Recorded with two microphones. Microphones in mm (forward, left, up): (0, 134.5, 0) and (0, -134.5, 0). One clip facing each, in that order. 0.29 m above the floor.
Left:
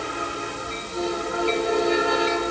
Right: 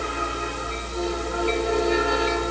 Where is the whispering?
No whispering in this recording.